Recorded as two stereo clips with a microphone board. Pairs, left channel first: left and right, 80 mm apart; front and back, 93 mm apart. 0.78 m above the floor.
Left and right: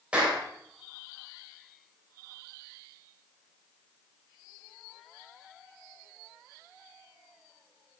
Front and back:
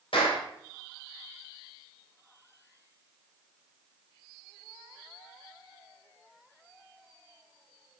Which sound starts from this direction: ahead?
A clap, at 0.1 s.